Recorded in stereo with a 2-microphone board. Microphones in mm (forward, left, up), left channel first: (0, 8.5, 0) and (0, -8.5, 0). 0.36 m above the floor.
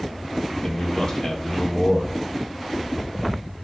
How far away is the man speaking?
About 1.6 m.